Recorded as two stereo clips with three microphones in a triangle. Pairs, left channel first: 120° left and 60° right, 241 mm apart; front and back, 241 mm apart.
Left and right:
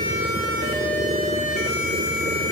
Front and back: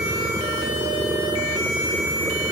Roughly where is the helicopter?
Right.